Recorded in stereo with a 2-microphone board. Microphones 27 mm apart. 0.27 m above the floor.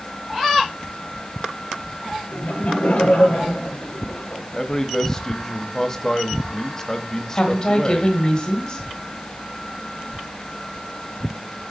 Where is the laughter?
60° left (ahead or behind), 4.5 m.